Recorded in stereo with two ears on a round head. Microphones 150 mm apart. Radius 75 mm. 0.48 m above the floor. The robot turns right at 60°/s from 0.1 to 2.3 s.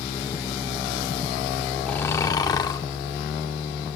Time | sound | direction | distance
1.9 | snoring | 5° left (ahead or behind) | 0.6 m